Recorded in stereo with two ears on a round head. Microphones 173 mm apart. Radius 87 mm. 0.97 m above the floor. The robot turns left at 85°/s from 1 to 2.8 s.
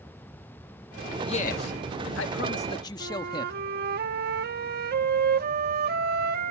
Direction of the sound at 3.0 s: 55° right (ahead or behind).